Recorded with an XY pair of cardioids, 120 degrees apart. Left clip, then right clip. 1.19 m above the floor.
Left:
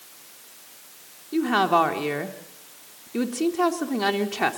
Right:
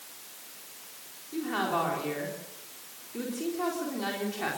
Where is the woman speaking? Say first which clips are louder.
Left 10 dB; 60° left, 4 m.